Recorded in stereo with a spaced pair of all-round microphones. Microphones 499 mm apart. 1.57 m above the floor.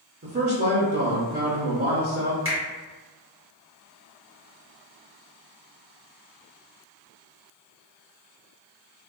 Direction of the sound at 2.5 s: 25° right (ahead or behind).